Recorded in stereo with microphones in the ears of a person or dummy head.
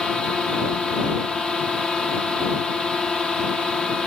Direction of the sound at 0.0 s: 5° right (ahead or behind).